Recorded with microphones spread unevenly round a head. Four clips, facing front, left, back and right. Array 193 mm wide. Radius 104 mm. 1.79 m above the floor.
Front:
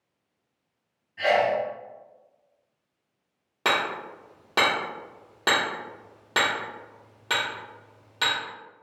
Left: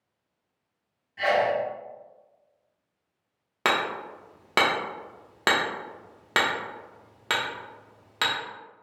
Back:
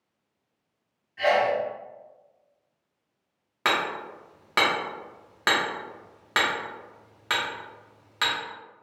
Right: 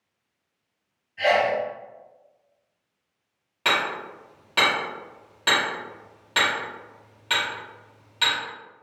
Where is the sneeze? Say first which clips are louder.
Right 2 dB, even; 70° left, 2.0 m.